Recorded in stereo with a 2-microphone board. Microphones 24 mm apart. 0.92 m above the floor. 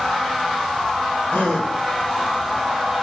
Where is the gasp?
70° left (ahead or behind), 2.5 m.